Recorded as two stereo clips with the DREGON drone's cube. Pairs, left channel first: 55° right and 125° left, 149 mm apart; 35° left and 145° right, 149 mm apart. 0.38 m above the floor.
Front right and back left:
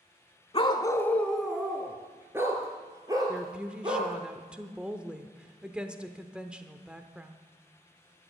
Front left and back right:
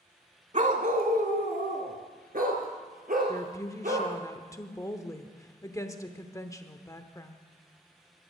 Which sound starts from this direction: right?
A dog barking, at 0.5 s.